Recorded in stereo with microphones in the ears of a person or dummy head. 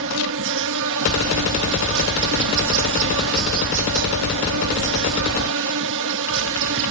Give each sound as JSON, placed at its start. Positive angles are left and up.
{"t": 0.0, "sound": "an insect", "side_deg": -65}